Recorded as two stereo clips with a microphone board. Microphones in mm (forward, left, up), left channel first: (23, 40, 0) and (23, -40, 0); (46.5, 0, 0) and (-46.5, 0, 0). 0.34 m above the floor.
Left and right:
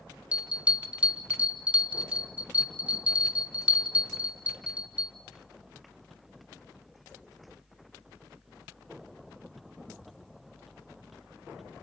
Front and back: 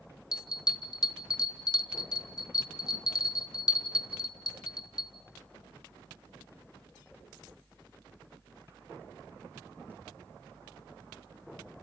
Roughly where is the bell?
Ahead.